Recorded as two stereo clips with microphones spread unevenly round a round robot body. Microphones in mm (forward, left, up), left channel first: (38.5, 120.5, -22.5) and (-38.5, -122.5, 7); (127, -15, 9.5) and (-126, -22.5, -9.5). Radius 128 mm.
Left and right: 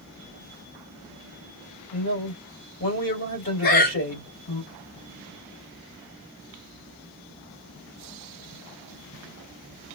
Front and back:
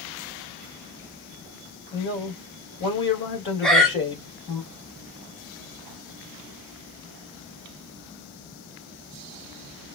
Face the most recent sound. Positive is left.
turn(degrees=95)